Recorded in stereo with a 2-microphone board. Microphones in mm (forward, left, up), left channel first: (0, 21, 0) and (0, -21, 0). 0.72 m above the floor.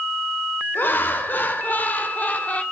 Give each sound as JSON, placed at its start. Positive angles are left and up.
{"t": 0.8, "sound": "laughter", "side_deg": 50, "distance_m": 2.5}